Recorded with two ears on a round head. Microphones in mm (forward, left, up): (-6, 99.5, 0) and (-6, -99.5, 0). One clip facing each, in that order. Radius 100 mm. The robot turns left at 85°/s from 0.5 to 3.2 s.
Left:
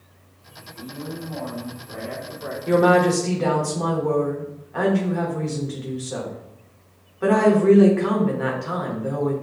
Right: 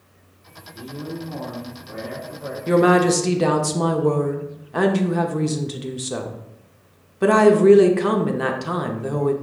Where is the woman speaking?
25° right, 0.7 m; by 9.3 s 70° right, 0.7 m.